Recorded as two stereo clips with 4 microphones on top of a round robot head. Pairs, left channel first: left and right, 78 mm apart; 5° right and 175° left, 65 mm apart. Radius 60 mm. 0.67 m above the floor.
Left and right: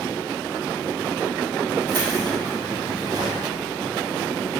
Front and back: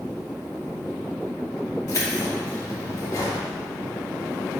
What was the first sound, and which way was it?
Keys jangling, 50° right.